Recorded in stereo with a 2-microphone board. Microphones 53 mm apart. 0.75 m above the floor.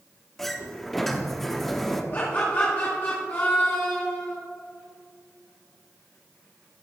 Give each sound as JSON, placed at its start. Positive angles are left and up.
{"t": 0.4, "sound": "a sliding door", "side_deg": 0, "distance_m": 0.8}
{"t": 2.1, "sound": "laughter", "side_deg": 40, "distance_m": 1.8}